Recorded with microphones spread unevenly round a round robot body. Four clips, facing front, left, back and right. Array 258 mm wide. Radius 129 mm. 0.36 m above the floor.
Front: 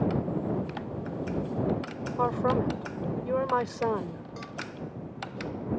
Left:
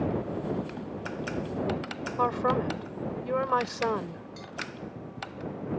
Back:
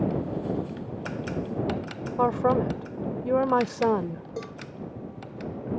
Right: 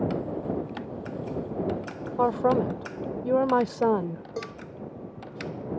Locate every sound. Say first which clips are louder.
2.2 s a woman speaking: right 4 dB, back 4 dB; 130° right
4.4 s a cowbell: right 9 dB, back 6 dB; 130° right